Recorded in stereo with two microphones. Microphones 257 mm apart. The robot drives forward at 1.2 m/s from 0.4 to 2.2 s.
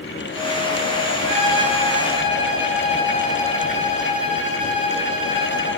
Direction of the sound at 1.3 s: 55° right (ahead or behind).